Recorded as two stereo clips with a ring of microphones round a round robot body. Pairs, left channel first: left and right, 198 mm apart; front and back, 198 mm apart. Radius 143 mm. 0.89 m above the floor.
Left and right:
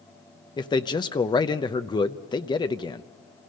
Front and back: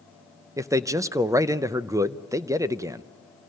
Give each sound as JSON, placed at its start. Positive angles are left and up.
{"t": 0.6, "sound": "a man speaking", "azimuth_deg": 125, "distance_m": 0.7}